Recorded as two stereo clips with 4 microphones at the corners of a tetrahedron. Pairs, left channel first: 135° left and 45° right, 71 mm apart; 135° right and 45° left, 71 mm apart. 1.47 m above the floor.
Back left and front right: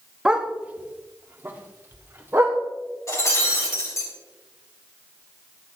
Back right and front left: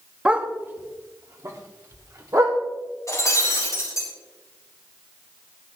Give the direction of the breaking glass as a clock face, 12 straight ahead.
6 o'clock.